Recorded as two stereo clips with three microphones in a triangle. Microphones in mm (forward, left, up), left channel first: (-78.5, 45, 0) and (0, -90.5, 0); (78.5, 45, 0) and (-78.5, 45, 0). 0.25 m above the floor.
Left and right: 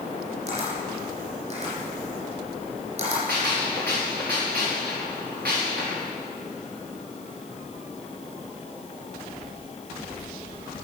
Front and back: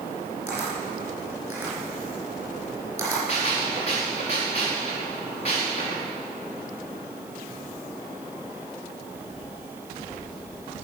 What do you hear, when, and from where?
0.5 s a camera shutter: 105° right, 5 m
3.3 s a gunshot: 50° right, 4.5 m